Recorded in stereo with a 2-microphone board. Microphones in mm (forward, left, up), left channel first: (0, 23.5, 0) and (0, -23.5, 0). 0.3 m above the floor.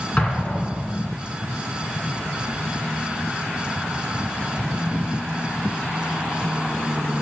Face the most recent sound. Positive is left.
turn(degrees=30)  # may be behind; listen again after turning